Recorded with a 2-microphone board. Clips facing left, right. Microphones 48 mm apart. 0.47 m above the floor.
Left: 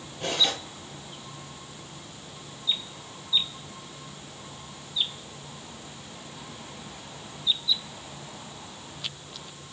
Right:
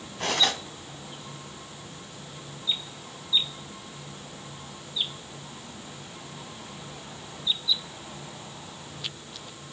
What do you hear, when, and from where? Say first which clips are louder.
0.2 s cutlery clinking: right 2 dB; 75° right (ahead or behind), 2.5 m